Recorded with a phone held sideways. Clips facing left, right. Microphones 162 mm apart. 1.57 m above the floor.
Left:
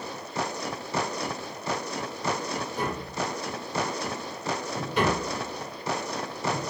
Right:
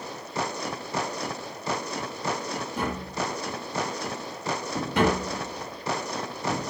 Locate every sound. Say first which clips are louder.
2.8 s tapping: right 2 dB; 80° right, 3.5 m